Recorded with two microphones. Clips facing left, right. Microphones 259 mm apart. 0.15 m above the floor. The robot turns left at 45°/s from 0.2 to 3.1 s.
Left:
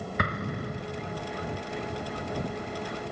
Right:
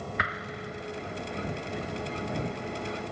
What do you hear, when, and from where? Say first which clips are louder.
0.2 s an explosion: left 5 dB; 45° left (ahead or behind)